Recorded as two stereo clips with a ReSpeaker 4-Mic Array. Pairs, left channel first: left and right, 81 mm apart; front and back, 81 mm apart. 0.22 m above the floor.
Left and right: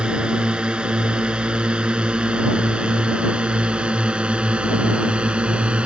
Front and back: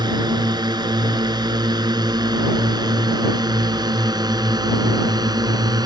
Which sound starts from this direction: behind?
A drone, at 0.0 s.